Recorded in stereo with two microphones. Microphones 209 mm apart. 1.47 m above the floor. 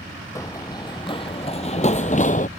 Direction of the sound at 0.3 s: 15° left (ahead or behind).